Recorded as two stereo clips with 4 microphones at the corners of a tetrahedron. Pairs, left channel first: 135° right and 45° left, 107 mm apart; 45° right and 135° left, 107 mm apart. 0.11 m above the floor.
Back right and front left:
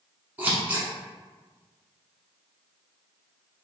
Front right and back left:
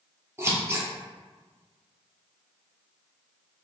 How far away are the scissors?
About 1.2 m.